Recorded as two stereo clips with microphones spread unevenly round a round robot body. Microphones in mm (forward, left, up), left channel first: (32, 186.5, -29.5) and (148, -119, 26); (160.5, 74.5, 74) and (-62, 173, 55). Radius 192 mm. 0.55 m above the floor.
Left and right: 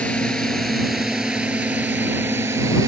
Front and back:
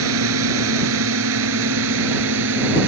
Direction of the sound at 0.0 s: 160° right.